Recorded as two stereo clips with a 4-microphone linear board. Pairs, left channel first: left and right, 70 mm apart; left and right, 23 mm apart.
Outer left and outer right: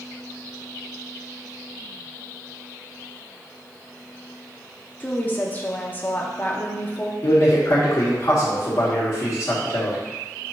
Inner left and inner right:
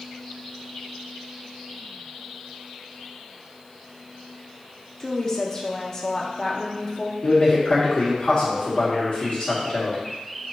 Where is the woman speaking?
25° left (ahead or behind), 0.7 m.